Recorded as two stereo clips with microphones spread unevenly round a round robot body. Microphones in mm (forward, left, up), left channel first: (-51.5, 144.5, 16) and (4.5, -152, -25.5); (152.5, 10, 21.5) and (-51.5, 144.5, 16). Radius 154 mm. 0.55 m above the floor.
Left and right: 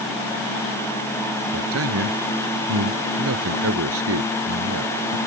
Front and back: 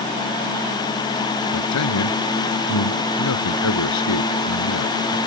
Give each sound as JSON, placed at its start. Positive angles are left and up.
{"t": 1.5, "sound": "a man speaking", "azimuth_deg": -30}